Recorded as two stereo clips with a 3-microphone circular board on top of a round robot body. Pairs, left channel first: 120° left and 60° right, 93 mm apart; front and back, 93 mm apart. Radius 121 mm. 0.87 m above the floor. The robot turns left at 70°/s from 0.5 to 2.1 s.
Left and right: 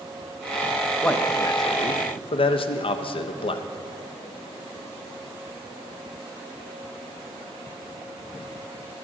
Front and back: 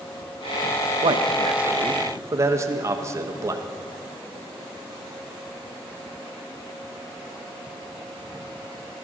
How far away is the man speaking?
About 0.6 m.